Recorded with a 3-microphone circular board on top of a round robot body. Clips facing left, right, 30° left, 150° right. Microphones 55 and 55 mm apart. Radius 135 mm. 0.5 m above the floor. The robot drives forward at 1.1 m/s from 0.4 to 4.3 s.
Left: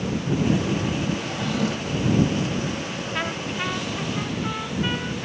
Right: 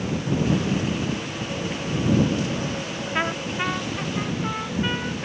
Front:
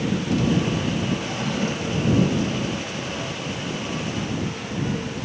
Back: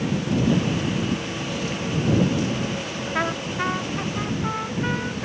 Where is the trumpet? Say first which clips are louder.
Right 3 dB, back 5 dB; 160° right; by 5.3 s 170° right.